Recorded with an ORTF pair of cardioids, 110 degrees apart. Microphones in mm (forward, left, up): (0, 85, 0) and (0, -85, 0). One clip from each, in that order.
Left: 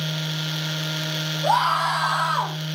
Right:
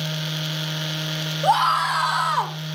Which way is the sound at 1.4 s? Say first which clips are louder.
Right 1 dB; 50° right.